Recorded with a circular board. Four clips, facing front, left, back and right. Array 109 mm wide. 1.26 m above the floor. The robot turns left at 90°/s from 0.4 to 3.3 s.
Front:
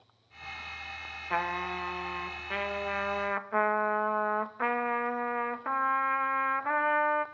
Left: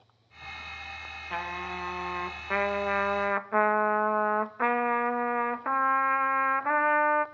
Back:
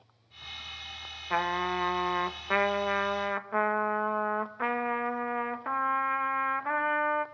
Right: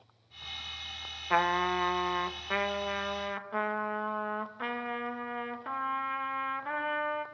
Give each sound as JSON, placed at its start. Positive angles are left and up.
{"t": 1.3, "sound": "a trumpet", "azimuth_deg": -90, "distance_m": 0.5}